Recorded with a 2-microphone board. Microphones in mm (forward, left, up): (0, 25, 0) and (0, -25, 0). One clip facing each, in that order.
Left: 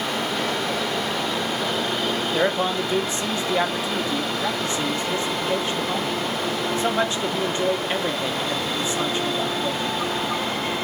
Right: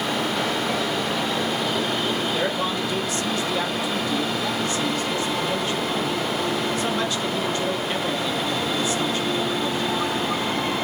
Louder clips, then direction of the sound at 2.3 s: Left 2 dB; 25° left (ahead or behind).